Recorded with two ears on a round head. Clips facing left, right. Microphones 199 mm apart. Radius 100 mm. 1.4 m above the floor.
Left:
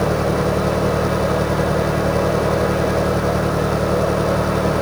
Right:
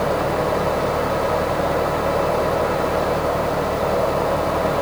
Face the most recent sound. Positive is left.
turn(degrees=40)  # may be behind; listen again after turning